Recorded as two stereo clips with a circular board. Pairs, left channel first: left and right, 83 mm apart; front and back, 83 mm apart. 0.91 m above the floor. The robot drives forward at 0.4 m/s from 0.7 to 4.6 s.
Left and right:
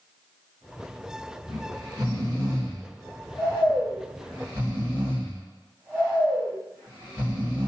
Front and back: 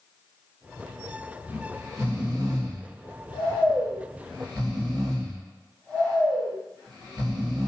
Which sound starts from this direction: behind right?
Snoring, at 1.5 s.